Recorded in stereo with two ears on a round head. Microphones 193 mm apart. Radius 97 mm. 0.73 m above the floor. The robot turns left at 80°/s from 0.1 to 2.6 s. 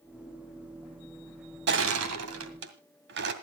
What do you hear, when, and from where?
1.7 s crushing: 50° right (ahead or behind), 2 m; by 3.3 s 55° right (ahead or behind), 2 m